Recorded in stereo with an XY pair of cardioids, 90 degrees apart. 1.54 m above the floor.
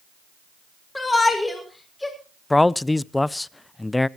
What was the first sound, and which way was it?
A shout, 15° left.